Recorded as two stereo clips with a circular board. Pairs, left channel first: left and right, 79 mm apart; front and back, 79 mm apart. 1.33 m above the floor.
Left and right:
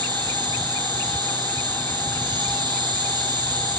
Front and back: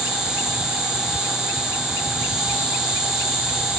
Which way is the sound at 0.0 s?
95° right.